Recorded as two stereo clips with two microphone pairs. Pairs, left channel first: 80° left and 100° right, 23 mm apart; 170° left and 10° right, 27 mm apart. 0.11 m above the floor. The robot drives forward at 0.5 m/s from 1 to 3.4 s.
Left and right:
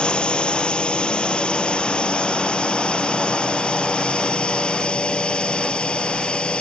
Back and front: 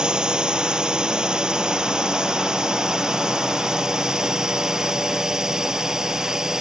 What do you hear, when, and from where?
0.0 s a drone: 45° left; by 6.6 s 55° left